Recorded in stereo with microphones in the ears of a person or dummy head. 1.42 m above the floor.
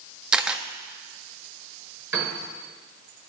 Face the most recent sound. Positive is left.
turn(degrees=-20)  # may be behind; listen again after turning